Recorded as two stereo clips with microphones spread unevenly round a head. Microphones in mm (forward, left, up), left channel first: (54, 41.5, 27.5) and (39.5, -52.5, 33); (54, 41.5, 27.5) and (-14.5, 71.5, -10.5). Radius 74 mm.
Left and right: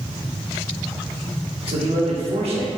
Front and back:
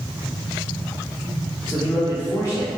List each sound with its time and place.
1.7 s a man speaking: 100° right, 1.1 m